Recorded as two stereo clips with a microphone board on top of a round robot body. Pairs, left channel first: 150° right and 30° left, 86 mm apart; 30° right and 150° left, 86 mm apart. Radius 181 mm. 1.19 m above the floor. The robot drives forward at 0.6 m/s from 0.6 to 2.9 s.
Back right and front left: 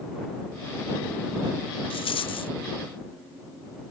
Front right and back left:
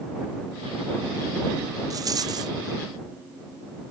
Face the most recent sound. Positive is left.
turn(degrees=-170)